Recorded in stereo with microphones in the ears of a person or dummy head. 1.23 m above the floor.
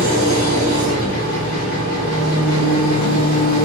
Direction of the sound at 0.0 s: 55° left (ahead or behind).